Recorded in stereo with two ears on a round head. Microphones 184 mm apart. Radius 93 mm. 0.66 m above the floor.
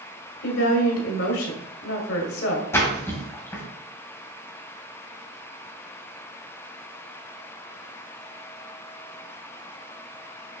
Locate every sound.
0.4 s a woman speaking: 70° left (ahead or behind), 1.6 m
2.7 s a splash: 15° left (ahead or behind), 2.5 m